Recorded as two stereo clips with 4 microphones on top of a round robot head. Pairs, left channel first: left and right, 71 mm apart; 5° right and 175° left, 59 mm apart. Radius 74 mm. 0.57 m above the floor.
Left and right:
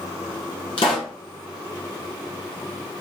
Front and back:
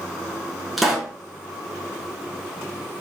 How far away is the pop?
About 1.5 m.